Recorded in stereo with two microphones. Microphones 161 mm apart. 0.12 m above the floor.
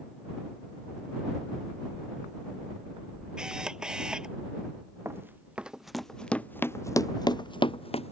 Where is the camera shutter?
5° right (ahead or behind).